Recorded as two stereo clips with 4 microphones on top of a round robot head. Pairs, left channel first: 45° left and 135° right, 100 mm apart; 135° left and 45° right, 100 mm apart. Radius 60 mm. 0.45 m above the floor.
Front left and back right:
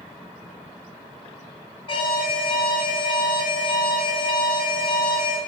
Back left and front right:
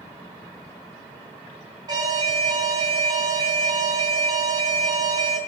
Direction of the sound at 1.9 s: 5° left.